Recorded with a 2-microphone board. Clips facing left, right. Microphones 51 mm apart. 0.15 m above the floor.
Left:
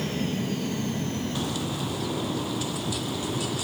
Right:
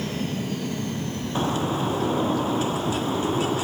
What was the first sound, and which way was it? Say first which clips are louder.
A bird: right 5 dB; 35° right (ahead or behind).